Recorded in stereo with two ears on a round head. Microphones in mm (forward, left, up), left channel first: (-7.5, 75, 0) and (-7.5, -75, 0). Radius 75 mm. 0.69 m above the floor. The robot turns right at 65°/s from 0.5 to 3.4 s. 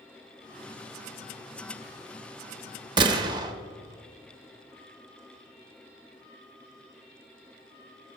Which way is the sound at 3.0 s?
25° right (ahead or behind).